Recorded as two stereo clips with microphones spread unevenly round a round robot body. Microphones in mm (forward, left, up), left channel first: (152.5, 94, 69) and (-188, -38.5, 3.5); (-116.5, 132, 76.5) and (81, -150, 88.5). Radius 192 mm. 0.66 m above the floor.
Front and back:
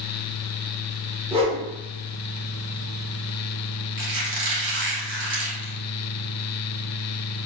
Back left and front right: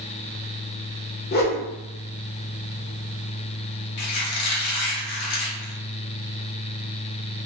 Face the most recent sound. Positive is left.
turn(degrees=160)